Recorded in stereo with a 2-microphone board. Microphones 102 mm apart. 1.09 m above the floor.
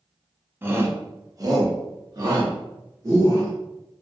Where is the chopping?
No chopping in this recording.